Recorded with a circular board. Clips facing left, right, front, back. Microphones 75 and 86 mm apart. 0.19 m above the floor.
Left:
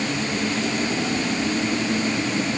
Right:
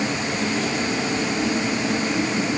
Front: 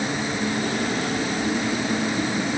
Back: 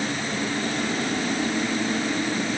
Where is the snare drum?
No snare drum in this recording.